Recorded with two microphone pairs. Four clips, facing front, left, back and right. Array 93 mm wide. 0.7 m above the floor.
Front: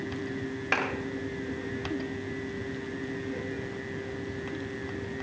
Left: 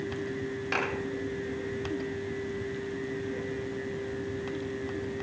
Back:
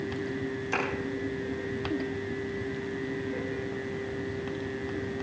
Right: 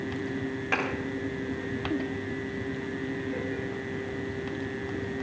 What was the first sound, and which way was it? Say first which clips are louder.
A clap: right 2 dB, front 2 dB; 15° right.